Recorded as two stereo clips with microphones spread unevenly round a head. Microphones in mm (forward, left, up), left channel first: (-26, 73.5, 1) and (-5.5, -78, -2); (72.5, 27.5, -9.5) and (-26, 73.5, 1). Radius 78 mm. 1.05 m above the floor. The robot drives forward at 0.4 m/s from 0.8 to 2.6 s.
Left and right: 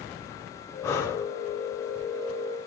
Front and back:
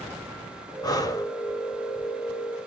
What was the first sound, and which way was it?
Breathing, 25° left.